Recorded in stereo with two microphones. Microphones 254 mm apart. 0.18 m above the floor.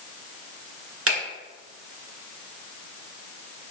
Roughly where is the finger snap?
Right.